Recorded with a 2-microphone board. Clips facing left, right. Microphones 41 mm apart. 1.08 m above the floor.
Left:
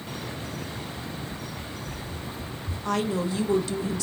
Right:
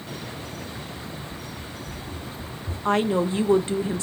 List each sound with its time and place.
1.3 s running footsteps: 60° right (ahead or behind), 2.5 m; by 2.8 s 45° right (ahead or behind), 3 m
2.9 s a woman speaking: 30° right (ahead or behind), 0.6 m